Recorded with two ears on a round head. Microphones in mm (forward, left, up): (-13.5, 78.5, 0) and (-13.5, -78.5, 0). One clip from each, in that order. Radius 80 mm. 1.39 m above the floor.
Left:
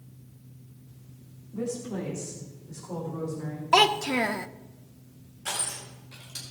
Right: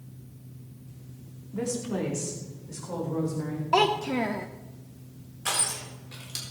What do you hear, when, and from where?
1.5 s a woman speaking: 70° right (ahead or behind), 2.5 m; by 3.6 s 85° right, 5 m
3.7 s a child speaking: 45° left (ahead or behind), 0.6 m
5.5 s crushing: 30° right (ahead or behind), 4 m